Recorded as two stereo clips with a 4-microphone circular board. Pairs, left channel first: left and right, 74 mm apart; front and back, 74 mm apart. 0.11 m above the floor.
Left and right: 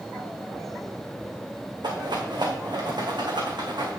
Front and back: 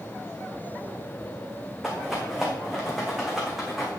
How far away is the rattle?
About 2.5 m.